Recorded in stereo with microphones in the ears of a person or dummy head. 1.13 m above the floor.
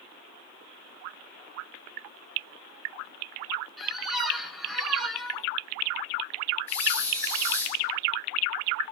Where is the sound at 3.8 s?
5° left (ahead or behind), 0.7 m.